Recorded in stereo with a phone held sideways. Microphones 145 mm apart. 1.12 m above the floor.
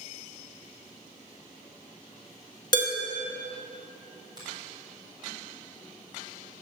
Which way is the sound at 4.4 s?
30° right (ahead or behind).